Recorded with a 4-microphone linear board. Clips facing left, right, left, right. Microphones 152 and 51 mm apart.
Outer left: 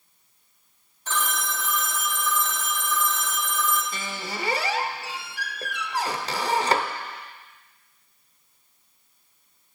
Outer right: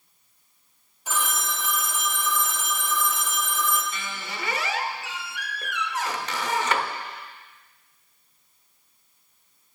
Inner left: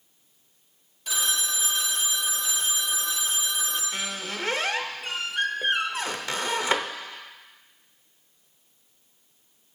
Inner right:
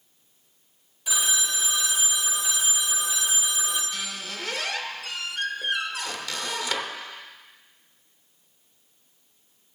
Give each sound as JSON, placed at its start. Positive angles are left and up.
{"t": 1.1, "sound": "a phone ringing", "side_deg": -10, "distance_m": 1.0}
{"t": 3.9, "sound": "a squeak", "side_deg": 35, "distance_m": 0.6}